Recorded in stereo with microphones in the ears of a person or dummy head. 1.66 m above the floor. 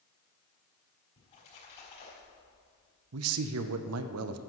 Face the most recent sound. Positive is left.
turn(degrees=-75)  # may be behind; listen again after turning